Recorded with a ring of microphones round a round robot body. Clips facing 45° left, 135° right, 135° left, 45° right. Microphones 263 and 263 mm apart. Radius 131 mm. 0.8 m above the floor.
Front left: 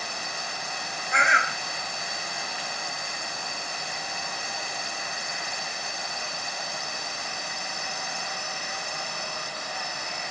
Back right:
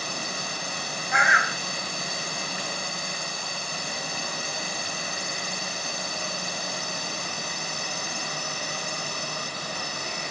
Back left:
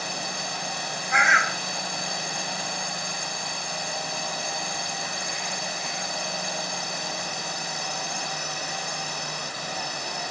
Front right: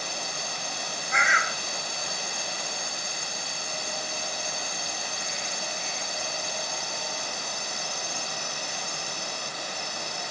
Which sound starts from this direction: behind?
A drone, at 0.0 s.